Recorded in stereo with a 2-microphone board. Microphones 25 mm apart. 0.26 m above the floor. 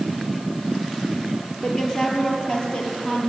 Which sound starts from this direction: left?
A woman speaking, at 1.6 s.